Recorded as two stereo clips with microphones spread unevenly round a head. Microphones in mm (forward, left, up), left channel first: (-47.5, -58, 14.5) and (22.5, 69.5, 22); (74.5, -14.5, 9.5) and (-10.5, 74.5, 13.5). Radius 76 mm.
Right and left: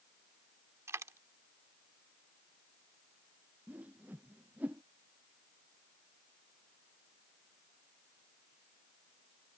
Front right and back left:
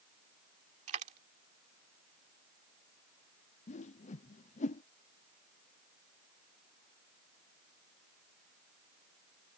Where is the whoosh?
20° right.